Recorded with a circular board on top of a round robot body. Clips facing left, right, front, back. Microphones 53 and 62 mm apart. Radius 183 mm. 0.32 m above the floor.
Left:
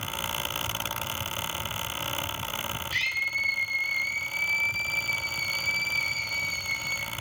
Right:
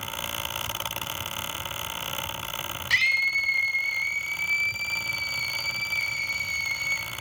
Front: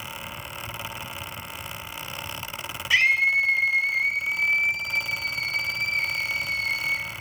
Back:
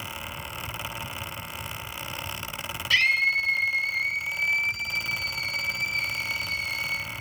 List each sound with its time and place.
2.9 s a scream: 75° right, 5.5 m; by 7.1 s 50° right, 10.5 m